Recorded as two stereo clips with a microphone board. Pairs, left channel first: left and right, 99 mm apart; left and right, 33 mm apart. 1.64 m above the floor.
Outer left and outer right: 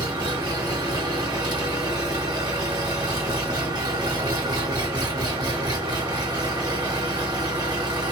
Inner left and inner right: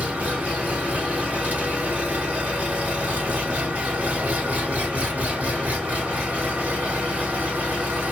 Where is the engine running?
45° right (ahead or behind), 1.7 m.